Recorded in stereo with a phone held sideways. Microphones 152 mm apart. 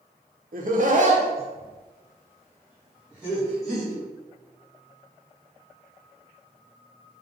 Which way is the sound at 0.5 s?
70° right (ahead or behind).